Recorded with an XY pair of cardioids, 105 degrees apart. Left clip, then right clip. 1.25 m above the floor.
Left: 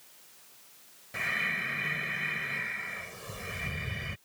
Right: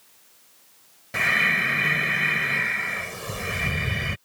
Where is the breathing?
60° right.